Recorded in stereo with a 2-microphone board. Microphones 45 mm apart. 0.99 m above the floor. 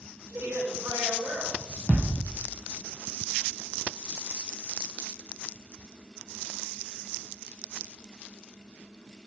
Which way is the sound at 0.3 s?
80° right.